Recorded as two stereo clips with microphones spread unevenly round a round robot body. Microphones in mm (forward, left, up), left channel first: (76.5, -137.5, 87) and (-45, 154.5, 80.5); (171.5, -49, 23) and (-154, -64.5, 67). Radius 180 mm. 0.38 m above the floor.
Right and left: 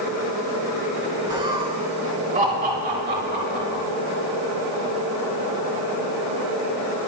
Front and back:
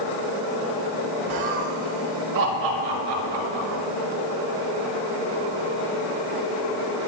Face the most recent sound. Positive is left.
turn(degrees=170)